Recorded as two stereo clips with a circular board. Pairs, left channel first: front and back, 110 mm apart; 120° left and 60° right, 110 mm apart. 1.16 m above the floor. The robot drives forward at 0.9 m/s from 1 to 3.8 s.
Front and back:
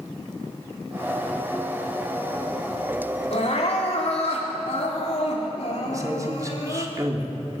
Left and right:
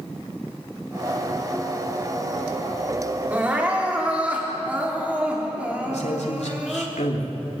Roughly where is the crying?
Ahead.